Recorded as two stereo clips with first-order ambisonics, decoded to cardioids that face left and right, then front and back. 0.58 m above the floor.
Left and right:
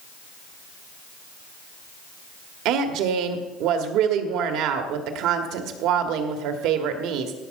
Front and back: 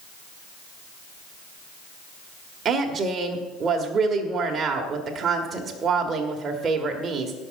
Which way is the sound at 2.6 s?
115° right.